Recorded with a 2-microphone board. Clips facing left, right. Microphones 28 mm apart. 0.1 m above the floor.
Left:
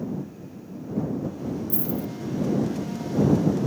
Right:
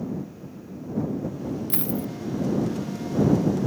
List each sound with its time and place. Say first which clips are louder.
1.7 s a dropped coin: even; 55° right (ahead or behind)